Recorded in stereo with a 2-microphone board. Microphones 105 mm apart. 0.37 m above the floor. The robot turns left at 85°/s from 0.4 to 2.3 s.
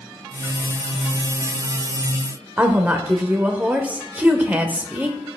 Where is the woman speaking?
15° right (ahead or behind), 0.9 m.